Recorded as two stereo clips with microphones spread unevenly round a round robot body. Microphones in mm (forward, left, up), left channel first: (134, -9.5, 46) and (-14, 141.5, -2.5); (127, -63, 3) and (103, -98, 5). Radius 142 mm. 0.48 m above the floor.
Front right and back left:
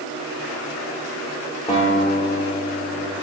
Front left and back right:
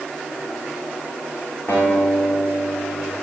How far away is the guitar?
About 5.5 m.